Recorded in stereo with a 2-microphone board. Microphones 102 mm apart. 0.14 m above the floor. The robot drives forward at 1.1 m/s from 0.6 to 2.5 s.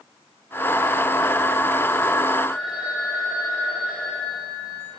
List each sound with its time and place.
2.5 s a phone ringing: centre (ahead or behind), 8 m